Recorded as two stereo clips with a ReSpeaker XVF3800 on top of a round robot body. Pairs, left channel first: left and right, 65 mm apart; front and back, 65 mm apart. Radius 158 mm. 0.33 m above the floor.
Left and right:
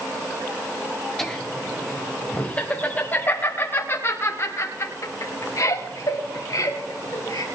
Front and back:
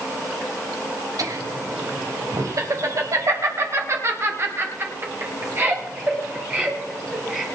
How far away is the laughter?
About 3 m.